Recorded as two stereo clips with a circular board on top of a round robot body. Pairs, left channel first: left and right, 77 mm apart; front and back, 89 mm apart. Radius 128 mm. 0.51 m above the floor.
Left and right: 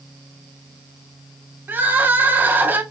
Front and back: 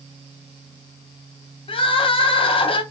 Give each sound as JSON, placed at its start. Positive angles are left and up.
{"t": 1.7, "sound": "crying", "azimuth_deg": -25, "distance_m": 0.7}